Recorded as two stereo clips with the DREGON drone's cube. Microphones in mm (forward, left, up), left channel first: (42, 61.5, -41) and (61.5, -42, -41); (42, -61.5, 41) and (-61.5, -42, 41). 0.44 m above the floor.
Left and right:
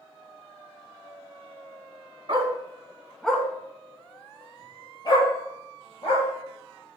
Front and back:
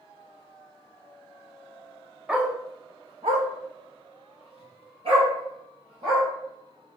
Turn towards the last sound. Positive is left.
turn(degrees=145)